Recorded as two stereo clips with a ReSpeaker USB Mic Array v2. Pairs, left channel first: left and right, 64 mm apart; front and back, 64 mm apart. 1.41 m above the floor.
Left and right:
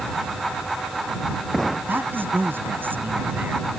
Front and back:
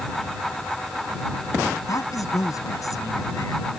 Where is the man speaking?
30° right.